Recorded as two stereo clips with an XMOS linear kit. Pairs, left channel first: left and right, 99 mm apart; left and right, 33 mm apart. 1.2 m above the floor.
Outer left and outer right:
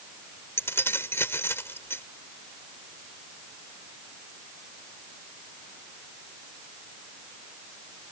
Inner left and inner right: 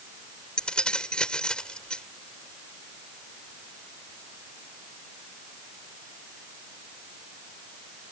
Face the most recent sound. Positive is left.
turn(degrees=25)  # may be behind; listen again after turning